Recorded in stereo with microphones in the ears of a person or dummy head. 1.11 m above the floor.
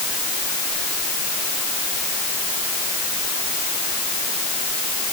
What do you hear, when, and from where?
Only background noise.